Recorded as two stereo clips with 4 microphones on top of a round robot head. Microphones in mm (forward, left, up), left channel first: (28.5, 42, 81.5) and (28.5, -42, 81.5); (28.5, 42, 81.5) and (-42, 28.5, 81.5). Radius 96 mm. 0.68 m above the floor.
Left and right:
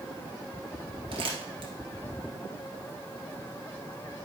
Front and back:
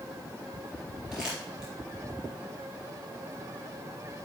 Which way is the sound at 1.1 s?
85° right.